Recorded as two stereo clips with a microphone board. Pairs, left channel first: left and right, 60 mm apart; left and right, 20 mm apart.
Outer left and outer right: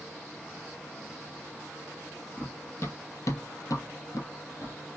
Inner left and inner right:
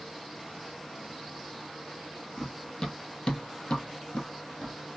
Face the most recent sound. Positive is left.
turn(degrees=60)  # may be behind; listen again after turning